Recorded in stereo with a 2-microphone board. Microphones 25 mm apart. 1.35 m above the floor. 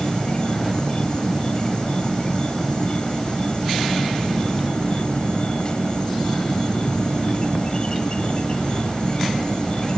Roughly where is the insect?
Left.